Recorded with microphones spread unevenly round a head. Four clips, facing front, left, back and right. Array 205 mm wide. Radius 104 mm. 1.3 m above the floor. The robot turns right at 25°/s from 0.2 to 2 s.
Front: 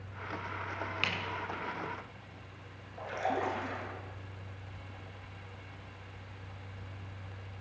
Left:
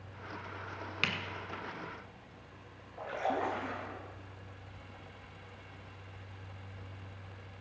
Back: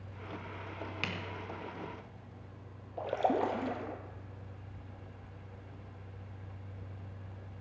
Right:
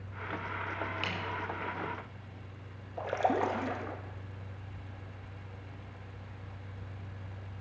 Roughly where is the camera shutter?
Left.